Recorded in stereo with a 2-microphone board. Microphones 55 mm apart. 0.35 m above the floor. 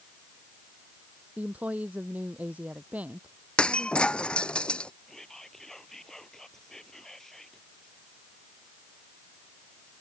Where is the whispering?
5° left (ahead or behind).